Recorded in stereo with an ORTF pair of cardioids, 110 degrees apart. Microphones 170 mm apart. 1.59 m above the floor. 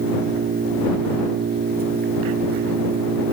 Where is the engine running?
70° right.